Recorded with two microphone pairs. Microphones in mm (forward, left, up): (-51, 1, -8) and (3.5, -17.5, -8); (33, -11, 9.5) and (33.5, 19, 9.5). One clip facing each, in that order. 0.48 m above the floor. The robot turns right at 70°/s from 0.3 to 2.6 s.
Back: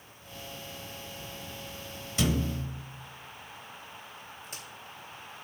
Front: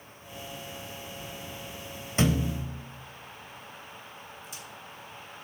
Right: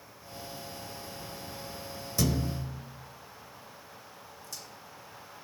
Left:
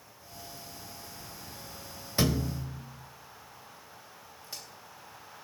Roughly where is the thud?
Ahead left.